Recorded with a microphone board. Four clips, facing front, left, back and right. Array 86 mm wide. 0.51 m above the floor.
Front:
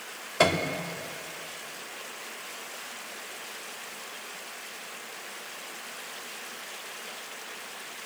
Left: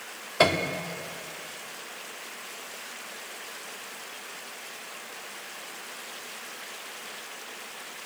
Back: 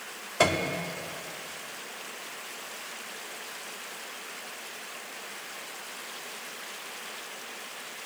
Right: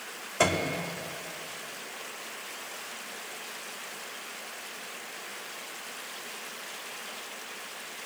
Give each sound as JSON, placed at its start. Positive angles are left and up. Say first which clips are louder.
{"t": 0.4, "sound": "a piano", "louder": "left 3 dB, front 1 dB", "azimuth_deg": 75, "distance_m": 0.8}